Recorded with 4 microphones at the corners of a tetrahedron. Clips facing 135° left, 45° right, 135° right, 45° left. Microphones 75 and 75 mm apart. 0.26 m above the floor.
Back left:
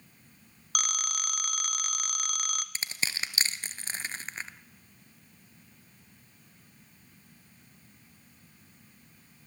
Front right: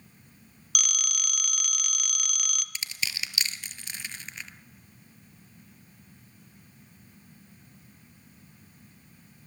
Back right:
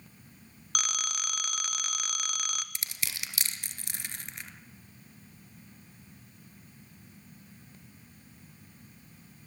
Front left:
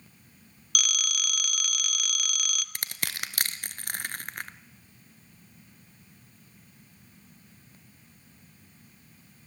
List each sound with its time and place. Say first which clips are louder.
0.8 s a phone ringing: back left 2 dB, front left 2 dB; 175° left, 1.0 m
2.8 s crushing: even, front left 4 dB; 80° left, 1.0 m